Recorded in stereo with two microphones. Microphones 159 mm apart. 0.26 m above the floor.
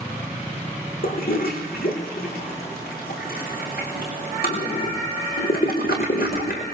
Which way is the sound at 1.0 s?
70° left (ahead or behind).